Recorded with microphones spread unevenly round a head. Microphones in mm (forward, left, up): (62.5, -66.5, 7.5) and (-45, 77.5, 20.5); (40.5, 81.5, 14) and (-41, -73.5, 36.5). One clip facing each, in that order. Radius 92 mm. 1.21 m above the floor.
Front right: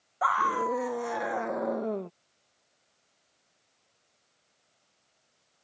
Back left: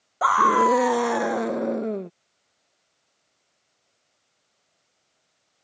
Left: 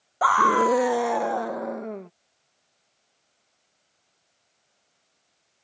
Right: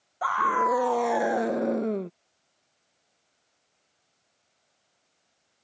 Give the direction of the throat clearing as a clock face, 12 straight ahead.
No throat clearing in this recording.